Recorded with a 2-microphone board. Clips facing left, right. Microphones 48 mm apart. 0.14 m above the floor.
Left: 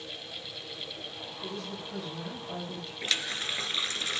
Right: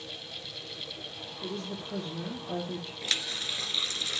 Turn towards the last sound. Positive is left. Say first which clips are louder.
# left 3 dB
turn(degrees=35)  # may be behind; listen again after turning